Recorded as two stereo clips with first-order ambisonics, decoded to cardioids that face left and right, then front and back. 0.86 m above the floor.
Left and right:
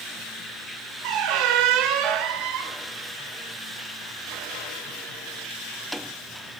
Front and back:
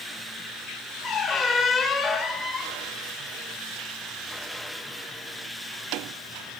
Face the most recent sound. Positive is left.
turn(degrees=-70)